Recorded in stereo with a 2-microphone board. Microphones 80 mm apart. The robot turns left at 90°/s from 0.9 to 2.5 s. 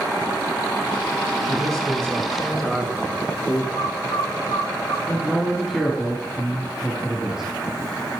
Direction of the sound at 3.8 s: 80° left.